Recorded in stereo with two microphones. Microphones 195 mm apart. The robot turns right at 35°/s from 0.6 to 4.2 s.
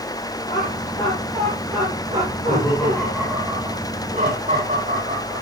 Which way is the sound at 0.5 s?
30° left (ahead or behind).